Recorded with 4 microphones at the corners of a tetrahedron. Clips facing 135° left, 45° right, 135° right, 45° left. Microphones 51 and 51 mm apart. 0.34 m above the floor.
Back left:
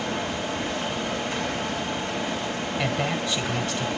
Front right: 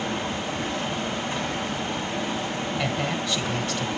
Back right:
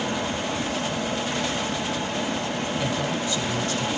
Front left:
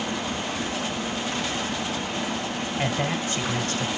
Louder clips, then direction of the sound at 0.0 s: Even, back right 2 dB; 105° right.